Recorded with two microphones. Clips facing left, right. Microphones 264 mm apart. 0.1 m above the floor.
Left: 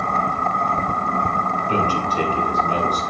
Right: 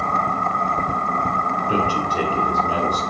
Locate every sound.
1.7 s a man speaking: 10° right (ahead or behind), 2.5 m